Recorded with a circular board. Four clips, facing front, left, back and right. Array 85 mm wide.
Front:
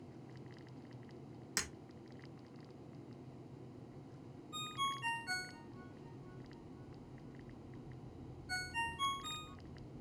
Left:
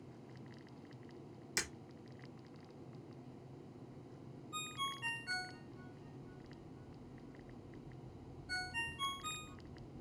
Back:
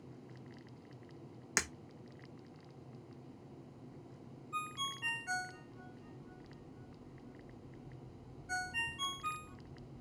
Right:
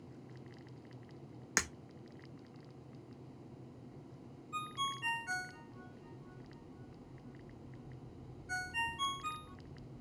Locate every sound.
1.6 s breaking glass: 120° right, 1.0 m
4.5 s a ringtone: 140° right, 0.9 m